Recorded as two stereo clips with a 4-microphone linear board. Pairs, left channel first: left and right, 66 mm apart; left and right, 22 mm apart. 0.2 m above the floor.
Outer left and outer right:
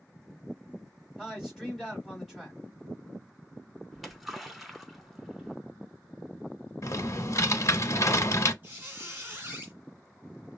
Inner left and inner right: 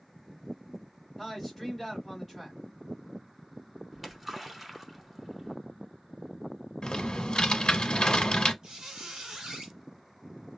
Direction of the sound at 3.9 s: Centre (ahead or behind).